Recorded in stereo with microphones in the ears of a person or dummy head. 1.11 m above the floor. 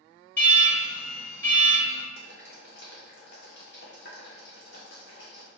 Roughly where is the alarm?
Centre.